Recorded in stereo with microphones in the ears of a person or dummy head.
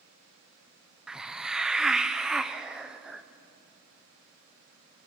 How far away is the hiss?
About 0.8 m.